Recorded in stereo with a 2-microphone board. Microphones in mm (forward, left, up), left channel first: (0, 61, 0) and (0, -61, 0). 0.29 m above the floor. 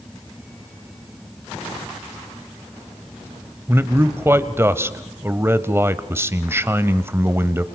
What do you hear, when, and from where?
3.7 s a man speaking: 20° right (ahead or behind), 1.1 m